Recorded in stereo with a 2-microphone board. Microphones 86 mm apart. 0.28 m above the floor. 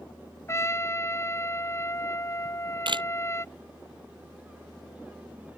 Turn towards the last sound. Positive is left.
turn(degrees=-65)  # may be behind; listen again after turning